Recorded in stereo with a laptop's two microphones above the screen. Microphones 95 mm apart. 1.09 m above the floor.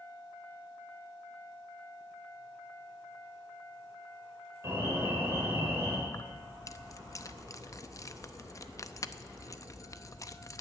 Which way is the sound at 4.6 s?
30° right (ahead or behind).